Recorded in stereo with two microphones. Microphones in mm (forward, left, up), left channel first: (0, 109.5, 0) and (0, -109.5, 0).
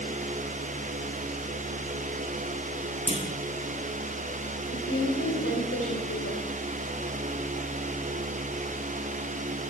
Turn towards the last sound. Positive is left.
turn(degrees=80)